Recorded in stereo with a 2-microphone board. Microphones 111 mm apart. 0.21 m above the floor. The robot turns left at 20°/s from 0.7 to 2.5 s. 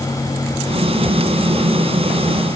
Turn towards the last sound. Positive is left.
No sound to turn to.